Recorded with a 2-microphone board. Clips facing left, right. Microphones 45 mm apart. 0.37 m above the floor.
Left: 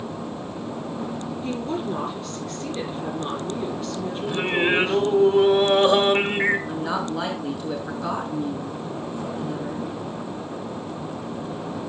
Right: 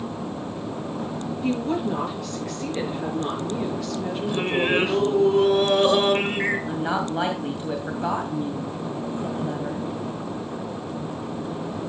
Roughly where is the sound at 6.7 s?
Right.